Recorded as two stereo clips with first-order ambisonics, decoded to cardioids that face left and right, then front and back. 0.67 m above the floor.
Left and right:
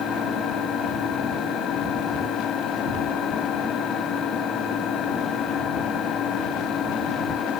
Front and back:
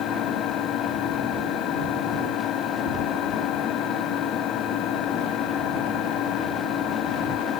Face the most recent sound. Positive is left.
turn(degrees=35)